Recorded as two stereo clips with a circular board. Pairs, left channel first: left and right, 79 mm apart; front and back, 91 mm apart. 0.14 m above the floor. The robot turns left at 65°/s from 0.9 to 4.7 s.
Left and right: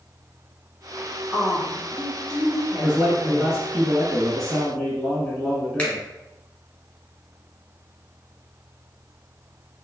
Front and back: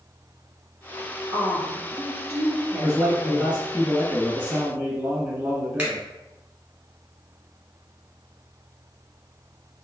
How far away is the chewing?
I don't hear chewing.